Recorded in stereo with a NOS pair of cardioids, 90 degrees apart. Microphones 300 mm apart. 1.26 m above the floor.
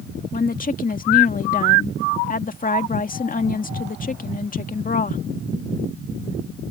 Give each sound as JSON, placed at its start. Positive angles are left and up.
{"t": 0.3, "sound": "a woman speaking", "azimuth_deg": 25}